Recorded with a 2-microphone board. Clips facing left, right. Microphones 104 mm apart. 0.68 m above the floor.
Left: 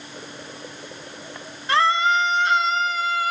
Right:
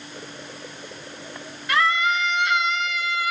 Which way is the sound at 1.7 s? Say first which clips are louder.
Left 3 dB; 30° left (ahead or behind).